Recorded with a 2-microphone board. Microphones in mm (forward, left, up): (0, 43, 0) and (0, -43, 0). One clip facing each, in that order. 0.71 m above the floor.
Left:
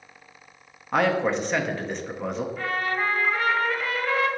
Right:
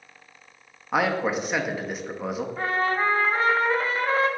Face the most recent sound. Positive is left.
turn(degrees=-30)  # may be behind; listen again after turning